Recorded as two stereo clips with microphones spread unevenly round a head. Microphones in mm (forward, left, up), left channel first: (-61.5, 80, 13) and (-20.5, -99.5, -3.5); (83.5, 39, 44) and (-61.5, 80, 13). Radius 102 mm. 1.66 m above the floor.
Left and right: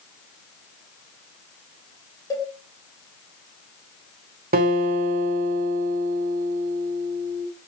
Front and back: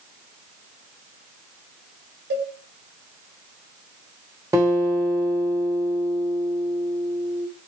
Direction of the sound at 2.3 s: 175° left.